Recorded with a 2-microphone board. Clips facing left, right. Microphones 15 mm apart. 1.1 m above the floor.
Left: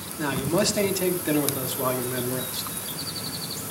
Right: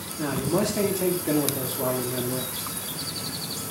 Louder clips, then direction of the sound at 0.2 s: Left 1 dB; 75° left (ahead or behind).